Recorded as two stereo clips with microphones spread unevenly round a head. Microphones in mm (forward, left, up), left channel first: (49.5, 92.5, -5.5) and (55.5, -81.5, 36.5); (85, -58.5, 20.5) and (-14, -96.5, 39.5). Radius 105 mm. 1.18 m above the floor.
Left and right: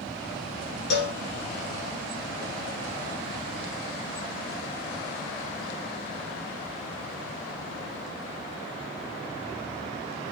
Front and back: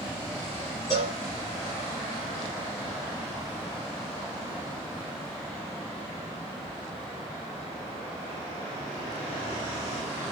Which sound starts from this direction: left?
A cowbell, at 0.9 s.